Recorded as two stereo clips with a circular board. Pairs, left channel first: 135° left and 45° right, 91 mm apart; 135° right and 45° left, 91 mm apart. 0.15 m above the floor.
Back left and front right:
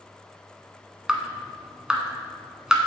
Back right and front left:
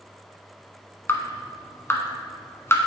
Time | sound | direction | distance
1.1 | dripping | 120° right | 1.2 m